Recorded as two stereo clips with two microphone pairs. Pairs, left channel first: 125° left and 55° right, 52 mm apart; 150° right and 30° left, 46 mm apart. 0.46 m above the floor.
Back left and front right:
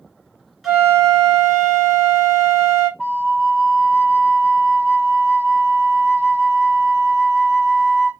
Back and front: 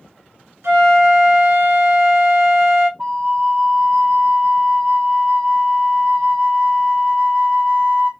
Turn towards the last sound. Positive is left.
turn(degrees=15)